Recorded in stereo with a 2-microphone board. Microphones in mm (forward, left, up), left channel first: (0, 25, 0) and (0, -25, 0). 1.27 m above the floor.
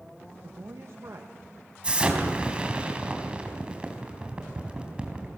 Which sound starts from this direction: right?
A man speaking, at 0.4 s.